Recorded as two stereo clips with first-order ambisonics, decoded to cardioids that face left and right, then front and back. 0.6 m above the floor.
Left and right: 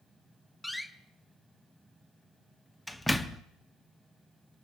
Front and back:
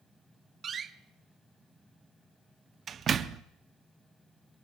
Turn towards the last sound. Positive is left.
turn(degrees=170)